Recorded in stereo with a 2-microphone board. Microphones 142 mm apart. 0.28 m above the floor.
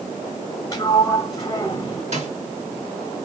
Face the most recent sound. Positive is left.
turn(degrees=-55)  # may be behind; listen again after turning